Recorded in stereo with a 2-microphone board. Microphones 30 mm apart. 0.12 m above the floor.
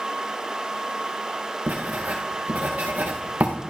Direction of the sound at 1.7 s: 80° right.